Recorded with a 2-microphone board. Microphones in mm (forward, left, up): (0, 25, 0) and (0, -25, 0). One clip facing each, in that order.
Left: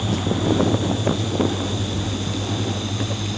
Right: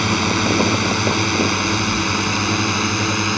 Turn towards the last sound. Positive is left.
turn(degrees=-60)  # may be behind; listen again after turning